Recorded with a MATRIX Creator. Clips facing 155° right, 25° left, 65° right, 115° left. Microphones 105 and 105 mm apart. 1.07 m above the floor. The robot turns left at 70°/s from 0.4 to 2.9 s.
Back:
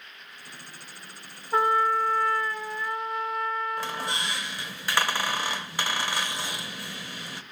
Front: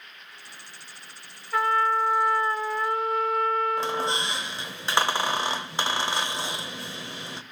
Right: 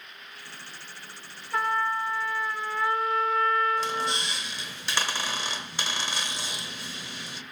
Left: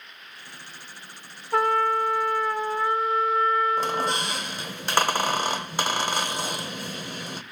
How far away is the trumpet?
About 1.8 m.